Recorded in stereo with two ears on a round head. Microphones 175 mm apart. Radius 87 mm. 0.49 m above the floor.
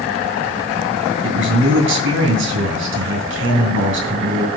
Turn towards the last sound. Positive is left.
turn(degrees=-70)  # may be behind; listen again after turning